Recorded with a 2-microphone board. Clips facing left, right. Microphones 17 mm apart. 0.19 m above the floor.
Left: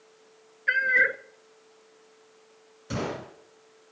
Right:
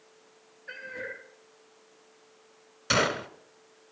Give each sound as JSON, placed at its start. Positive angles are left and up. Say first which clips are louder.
{"t": 0.7, "sound": "a cat meowing", "louder": "left 17 dB", "side_deg": 65, "distance_m": 0.9}
{"t": 2.9, "sound": "a gunshot", "louder": "right 7 dB", "side_deg": -55, "distance_m": 1.4}